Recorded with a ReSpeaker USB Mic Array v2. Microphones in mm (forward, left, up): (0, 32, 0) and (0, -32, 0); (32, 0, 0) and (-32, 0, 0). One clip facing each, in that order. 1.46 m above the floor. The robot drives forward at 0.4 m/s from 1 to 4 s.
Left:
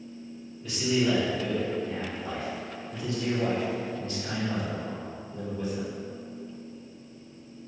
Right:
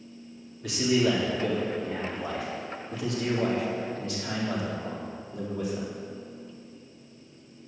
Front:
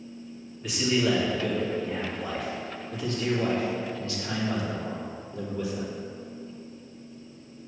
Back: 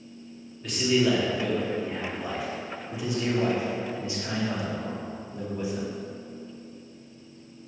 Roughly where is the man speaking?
Right.